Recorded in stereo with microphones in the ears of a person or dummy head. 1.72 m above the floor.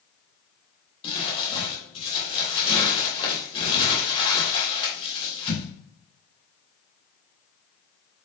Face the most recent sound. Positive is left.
turn(degrees=30)  # may be behind; listen again after turning